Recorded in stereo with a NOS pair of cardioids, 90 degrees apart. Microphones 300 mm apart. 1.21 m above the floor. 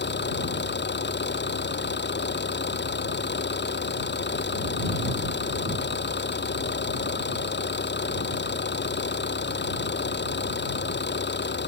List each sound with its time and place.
0.0 s an engine running: 35° left